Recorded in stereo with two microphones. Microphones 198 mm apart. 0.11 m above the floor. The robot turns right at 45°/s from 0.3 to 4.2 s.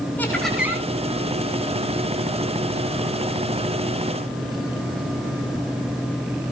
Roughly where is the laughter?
Centre.